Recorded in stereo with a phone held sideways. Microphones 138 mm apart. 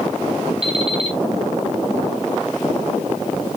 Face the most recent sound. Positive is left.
turn(degrees=-45)  # may be behind; listen again after turning